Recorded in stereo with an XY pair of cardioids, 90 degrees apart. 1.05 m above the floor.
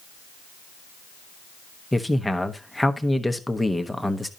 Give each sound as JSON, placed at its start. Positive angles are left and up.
{"t": 1.9, "sound": "a man speaking", "azimuth_deg": 5, "distance_m": 1.1}